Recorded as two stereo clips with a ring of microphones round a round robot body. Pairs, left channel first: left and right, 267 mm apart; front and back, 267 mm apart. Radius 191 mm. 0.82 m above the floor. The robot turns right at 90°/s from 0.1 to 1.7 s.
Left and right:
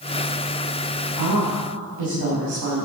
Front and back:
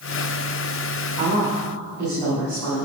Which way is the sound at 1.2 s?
125° right.